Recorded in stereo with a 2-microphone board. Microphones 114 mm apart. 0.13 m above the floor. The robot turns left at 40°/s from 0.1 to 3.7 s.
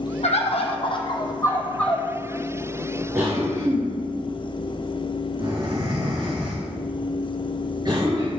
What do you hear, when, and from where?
0.2 s a bird: 75° left, 1.1 m; by 2.1 s straight ahead, 1.1 m
3.1 s a cough: 25° right (ahead or behind), 2.5 m; by 8.3 s 40° right (ahead or behind), 2.5 m